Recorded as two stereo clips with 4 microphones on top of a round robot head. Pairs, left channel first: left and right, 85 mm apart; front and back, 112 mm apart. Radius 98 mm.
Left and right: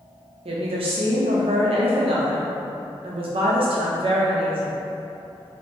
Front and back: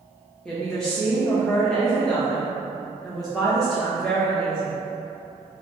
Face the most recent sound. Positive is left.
turn(degrees=-90)